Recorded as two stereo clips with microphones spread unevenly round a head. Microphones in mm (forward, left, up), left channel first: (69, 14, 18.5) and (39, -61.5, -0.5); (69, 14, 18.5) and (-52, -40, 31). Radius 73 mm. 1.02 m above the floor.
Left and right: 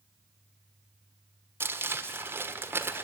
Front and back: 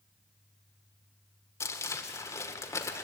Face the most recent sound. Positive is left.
turn(degrees=-45)